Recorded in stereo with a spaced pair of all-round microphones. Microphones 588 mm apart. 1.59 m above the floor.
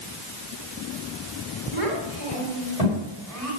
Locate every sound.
1.7 s a child speaking: 60° left (ahead or behind), 4.5 m; by 3.5 s 70° left (ahead or behind), 6.5 m